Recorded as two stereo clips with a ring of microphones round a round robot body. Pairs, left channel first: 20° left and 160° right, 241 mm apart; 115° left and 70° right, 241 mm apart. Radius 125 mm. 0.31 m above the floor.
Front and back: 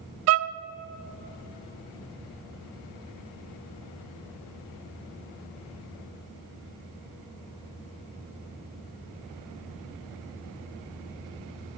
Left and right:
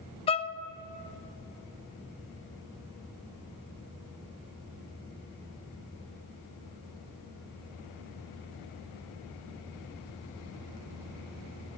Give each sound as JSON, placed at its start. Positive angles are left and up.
{"t": 0.3, "sound": "a violin", "azimuth_deg": 180, "distance_m": 0.6}